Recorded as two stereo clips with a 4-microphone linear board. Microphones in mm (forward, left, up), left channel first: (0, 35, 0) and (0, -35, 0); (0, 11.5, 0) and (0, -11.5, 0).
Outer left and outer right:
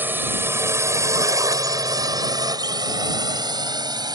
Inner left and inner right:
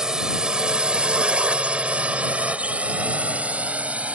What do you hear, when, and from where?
0.0 s a drone: 30° right (ahead or behind); by 4.2 s 75° right (ahead or behind)